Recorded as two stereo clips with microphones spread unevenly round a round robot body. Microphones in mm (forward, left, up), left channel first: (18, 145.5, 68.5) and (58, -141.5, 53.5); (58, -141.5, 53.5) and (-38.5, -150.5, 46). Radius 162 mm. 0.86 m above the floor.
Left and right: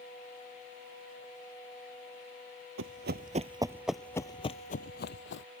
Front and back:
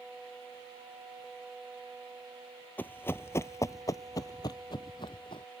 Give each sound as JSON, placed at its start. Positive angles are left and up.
{"t": 2.8, "sound": "running footsteps", "azimuth_deg": -50}